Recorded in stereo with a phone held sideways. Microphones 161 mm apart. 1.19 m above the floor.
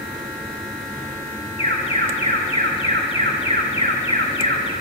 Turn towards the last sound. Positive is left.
turn(degrees=35)  # may be behind; listen again after turning